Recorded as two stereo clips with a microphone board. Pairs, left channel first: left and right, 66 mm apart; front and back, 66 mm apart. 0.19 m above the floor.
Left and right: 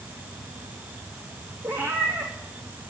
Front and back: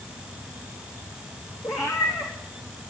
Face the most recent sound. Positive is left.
turn(degrees=-30)